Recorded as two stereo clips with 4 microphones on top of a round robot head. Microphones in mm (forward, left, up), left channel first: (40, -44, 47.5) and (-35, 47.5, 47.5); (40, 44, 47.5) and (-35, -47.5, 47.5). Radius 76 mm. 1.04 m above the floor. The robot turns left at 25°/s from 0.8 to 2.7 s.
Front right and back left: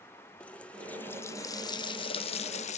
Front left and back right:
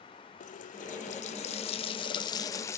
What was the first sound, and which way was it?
A running tap, 30° left.